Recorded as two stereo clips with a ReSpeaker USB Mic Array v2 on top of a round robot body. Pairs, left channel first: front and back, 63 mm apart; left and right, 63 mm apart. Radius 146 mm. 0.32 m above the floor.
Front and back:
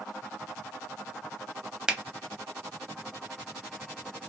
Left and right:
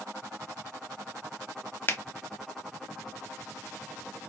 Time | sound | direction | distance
1.9 | a finger snap | 110° left | 0.9 m